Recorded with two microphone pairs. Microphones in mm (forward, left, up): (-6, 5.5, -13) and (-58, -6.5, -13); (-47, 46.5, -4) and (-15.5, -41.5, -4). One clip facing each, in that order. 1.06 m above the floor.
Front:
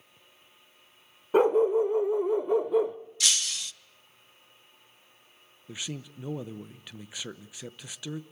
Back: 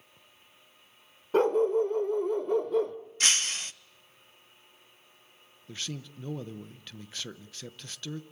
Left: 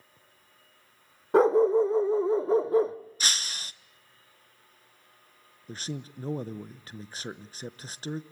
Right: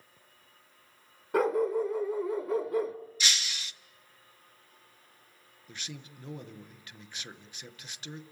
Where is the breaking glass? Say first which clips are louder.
Back 2 dB, even; 155° left, 0.7 m.